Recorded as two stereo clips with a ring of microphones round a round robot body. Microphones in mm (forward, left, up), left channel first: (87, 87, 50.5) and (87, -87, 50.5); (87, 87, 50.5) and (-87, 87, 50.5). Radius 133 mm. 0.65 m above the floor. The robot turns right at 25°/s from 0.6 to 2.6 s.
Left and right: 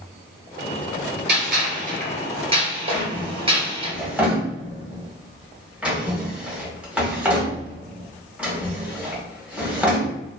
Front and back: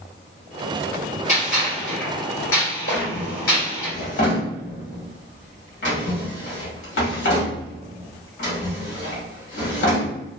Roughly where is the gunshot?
Ahead right.